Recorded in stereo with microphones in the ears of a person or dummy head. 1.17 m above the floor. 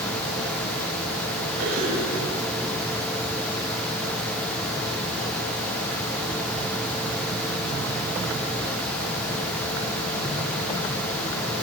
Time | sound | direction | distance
1.6 | a cough | 85° right | 5.5 m